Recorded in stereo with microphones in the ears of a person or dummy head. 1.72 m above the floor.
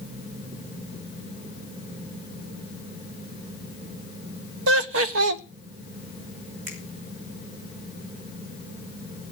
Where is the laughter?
70° right (ahead or behind), 1.2 m.